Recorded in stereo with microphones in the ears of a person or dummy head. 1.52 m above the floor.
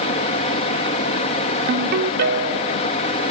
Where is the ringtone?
60° right (ahead or behind), 1.3 m.